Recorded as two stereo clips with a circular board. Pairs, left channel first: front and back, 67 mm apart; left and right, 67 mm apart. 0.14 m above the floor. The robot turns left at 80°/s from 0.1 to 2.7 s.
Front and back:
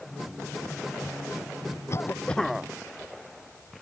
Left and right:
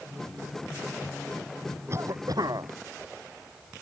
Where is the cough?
40° right; by 2.7 s 105° right.